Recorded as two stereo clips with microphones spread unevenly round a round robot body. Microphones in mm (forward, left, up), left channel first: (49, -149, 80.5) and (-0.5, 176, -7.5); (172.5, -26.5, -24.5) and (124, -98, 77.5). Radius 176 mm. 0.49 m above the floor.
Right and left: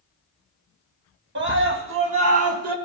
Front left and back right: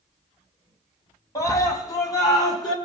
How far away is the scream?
About 3.5 m.